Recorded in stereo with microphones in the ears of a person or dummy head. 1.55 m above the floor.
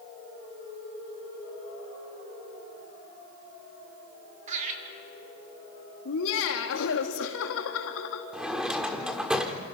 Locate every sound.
4.5 s laughter: 40° right (ahead or behind), 4 m
6.0 s laughter: 75° left (ahead or behind), 2 m
8.3 s a drawer: 5° right (ahead or behind), 1.6 m